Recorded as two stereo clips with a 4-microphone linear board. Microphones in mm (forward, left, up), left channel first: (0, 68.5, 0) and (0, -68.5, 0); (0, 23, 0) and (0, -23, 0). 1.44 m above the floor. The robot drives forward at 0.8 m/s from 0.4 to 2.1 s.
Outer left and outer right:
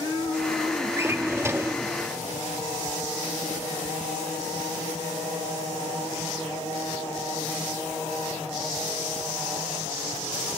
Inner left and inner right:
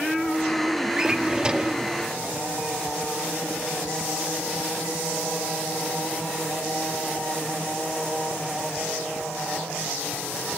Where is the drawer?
20° right (ahead or behind), 1.0 m.